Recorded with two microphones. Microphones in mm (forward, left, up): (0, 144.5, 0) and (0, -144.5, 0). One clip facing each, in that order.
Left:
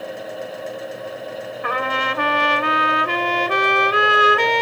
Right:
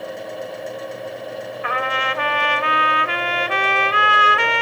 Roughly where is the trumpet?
Left.